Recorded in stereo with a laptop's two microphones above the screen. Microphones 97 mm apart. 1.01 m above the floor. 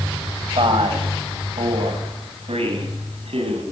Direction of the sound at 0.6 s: 65° right (ahead or behind).